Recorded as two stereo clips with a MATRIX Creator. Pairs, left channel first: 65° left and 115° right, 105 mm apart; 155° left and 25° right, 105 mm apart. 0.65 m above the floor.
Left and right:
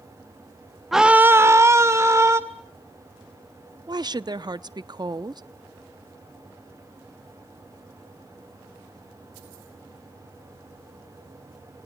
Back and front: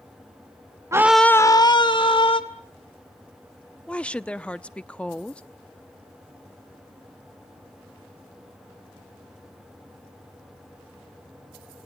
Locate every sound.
0.9 s a scream: 25° right, 0.7 m; by 2.4 s 175° right, 2 m
3.9 s a woman speaking: 130° right, 0.7 m